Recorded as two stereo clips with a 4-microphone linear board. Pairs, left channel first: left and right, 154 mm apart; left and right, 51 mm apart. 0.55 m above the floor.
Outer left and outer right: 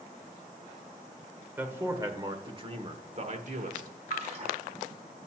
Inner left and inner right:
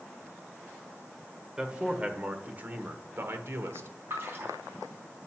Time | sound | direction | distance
1.6 | a man speaking | 15° right (ahead or behind) | 1.5 m
4.1 | a splash | 45° right (ahead or behind) | 4 m